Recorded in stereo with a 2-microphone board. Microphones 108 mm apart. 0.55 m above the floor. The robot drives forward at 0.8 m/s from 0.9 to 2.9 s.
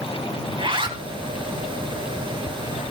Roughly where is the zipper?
Right.